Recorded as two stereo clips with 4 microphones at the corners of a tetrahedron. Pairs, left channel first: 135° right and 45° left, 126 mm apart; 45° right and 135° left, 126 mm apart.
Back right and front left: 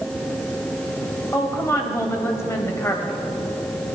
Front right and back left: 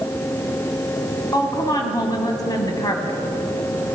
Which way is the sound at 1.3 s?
80° right.